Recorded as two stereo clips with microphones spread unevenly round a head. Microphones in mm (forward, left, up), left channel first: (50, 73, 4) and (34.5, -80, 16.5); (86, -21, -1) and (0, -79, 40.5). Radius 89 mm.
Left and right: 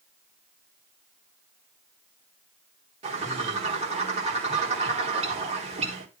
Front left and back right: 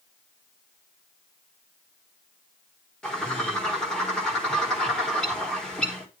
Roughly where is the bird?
Ahead right.